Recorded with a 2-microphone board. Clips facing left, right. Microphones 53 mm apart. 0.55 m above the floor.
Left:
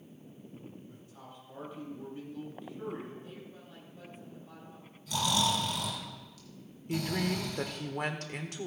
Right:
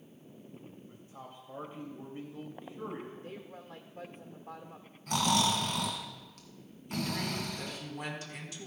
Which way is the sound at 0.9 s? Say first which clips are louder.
Right 2 dB; 30° right (ahead or behind).